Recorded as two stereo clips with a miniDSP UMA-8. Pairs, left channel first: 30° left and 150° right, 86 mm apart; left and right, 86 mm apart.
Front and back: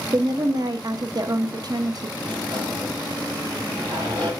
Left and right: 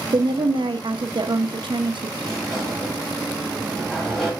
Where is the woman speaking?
110° right, 0.7 m.